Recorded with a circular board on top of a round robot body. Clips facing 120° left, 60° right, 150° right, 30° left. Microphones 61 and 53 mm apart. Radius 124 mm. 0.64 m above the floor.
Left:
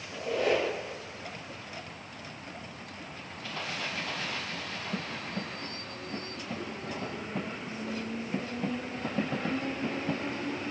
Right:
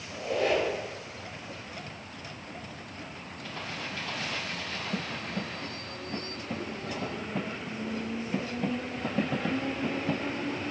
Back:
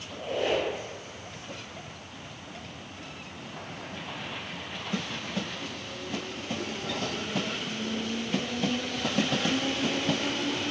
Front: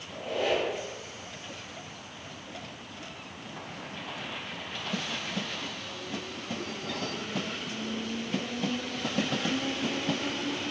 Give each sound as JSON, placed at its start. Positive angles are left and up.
{"t": 0.1, "sound": "a squeak", "azimuth_deg": 15, "distance_m": 1.0}